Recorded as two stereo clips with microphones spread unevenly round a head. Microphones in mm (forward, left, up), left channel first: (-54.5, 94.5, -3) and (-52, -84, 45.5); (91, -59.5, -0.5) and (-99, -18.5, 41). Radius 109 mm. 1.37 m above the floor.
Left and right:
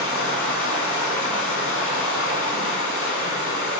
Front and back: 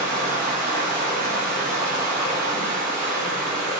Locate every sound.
0.0 s running water: 95° left, 1.1 m